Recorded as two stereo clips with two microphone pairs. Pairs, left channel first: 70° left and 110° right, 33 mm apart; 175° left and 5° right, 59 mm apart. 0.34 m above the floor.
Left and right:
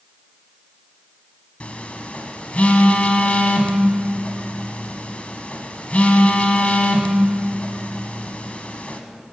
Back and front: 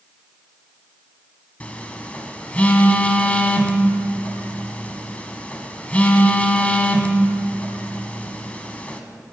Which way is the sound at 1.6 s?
115° left.